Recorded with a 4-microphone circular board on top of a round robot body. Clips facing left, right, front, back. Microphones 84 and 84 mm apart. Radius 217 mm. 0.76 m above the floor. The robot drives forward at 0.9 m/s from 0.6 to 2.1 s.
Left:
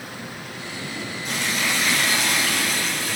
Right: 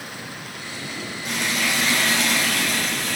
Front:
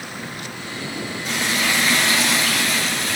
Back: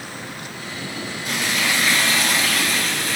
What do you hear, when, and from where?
1.2 s frying: 55° right, 9.5 m; by 3.2 s 60° right, 9 m